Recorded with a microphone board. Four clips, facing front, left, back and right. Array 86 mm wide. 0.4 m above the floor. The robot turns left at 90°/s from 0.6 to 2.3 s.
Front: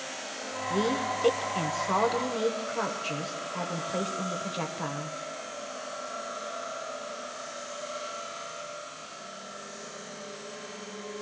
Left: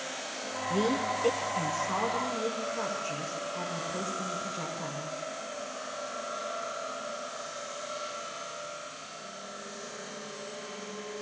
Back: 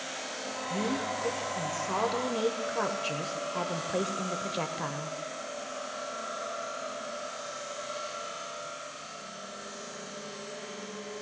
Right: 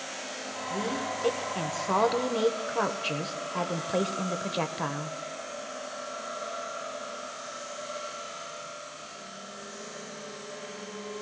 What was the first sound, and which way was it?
A woman speaking, 45° left.